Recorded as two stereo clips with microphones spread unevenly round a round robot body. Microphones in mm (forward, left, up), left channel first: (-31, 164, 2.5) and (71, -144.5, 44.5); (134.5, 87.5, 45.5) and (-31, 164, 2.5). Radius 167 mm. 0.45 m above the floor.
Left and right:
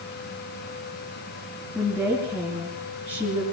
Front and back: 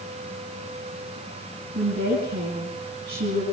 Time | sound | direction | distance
1.8 | a woman speaking | 170° right | 6 m